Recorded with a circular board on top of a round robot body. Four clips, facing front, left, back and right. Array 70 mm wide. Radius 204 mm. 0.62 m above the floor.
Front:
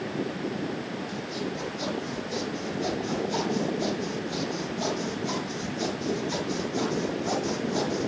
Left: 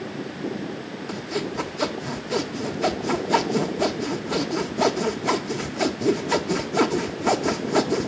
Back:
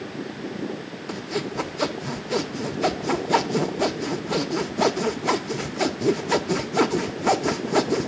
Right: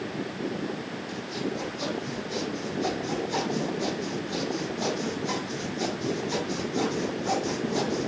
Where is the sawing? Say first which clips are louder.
Left 4 dB, back 3 dB; 145° left, 1.1 m.